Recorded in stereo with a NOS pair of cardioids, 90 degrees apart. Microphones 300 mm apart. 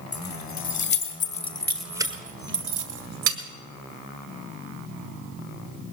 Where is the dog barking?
I don't hear a dog barking.